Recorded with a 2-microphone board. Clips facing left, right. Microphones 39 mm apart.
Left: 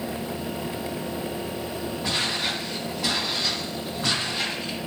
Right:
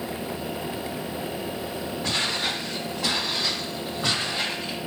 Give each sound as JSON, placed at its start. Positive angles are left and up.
{"t": 2.0, "sound": "footsteps", "side_deg": 5, "distance_m": 4.5}